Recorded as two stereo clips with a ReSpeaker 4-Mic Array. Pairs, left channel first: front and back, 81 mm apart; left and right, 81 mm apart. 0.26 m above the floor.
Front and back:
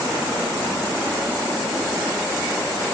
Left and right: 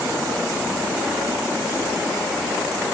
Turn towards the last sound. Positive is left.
No sound to turn to.